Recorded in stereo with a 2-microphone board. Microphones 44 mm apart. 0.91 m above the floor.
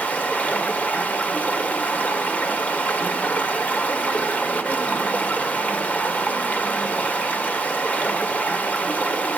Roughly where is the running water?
Left.